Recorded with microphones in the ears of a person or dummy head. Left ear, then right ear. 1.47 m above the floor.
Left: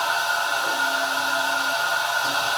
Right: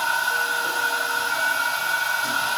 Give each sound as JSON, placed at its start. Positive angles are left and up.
{"t": 0.0, "sound": "a machine running", "side_deg": 0, "distance_m": 5.5}